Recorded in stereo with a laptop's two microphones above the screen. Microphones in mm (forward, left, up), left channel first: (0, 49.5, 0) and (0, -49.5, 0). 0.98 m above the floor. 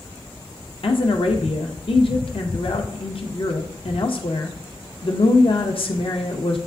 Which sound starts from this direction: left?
A woman speaking, at 0.8 s.